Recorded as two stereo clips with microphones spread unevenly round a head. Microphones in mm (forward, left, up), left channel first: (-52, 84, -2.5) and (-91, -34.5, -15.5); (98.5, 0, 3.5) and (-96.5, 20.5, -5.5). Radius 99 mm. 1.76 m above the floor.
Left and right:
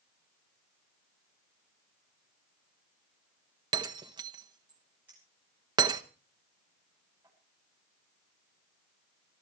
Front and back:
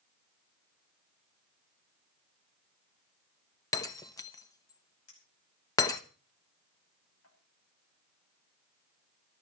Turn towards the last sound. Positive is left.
turn(degrees=-25)